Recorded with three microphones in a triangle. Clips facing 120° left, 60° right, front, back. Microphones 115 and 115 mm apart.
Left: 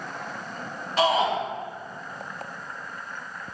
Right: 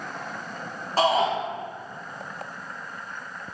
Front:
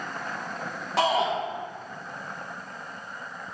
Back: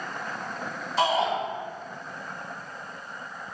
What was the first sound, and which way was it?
A shout, 5° right.